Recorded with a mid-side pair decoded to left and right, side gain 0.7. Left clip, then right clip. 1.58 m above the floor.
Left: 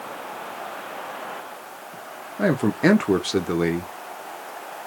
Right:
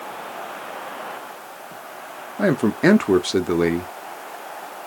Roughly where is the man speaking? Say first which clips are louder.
Right 2 dB; ahead.